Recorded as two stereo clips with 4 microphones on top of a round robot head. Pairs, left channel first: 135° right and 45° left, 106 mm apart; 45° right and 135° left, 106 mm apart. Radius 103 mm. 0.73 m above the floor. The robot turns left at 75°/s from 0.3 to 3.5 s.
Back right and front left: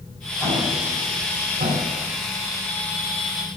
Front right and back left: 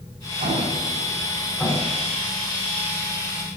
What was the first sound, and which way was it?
An explosion, 140° left.